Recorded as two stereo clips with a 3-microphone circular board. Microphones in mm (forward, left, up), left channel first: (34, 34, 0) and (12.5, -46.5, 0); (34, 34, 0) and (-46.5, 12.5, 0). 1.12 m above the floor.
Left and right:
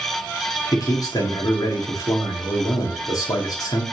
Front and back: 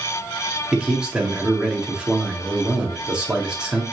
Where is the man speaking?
115° left, 2 m.